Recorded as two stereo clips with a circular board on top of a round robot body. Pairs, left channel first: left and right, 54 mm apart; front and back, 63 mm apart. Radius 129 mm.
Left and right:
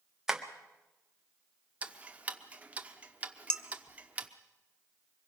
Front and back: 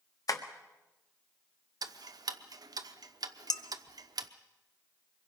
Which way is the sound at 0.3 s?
10° right.